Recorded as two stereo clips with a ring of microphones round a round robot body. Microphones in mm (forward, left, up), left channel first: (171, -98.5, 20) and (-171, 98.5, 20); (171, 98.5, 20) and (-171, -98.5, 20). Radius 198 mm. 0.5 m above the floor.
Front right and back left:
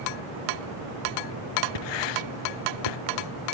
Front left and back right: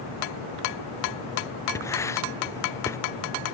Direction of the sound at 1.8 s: 55° right.